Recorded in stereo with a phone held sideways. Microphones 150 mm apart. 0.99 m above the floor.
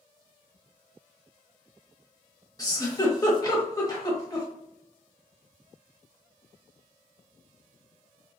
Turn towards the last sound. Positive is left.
turn(degrees=25)  # may be behind; listen again after turning